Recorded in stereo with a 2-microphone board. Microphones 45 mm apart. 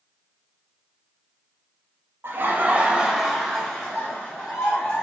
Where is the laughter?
60° right (ahead or behind), 0.6 m; by 5.0 s 25° left (ahead or behind), 1.7 m.